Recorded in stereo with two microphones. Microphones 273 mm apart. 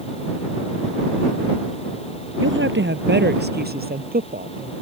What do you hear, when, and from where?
2.4 s a woman speaking: 45° right (ahead or behind); by 4.7 s 30° right (ahead or behind)